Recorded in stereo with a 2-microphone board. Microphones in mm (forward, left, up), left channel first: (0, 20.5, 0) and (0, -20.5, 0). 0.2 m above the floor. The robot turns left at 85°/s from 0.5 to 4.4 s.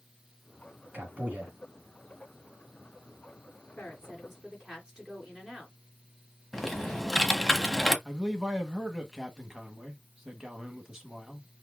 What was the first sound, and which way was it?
A man speaking, 100° right.